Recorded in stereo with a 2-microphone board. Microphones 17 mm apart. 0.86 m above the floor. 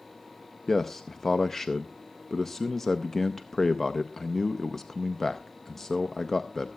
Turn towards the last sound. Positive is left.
turn(degrees=20)  # may be behind; listen again after turning